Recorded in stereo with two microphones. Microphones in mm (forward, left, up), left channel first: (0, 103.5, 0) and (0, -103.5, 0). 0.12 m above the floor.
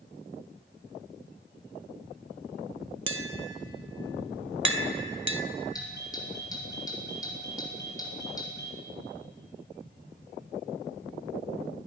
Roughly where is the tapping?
Right.